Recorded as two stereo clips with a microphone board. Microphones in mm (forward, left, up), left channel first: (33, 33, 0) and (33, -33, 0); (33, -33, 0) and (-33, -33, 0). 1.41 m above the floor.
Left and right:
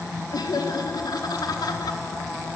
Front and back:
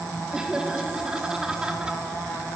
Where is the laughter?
100° left, 3.5 m.